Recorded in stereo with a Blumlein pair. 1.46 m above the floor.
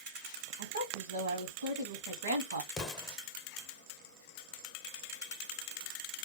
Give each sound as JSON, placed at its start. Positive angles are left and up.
{"t": 0.6, "sound": "a woman speaking", "azimuth_deg": -70, "distance_m": 0.8}
{"t": 2.7, "sound": "an explosion", "azimuth_deg": 15, "distance_m": 0.7}